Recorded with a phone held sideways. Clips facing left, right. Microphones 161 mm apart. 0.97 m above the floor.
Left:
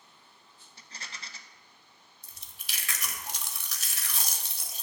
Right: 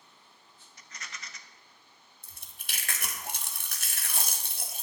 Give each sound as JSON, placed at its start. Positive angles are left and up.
{"t": 0.8, "sound": "a rattle", "side_deg": 30, "distance_m": 0.5}
{"t": 2.2, "sound": "chewing", "side_deg": -50, "distance_m": 1.0}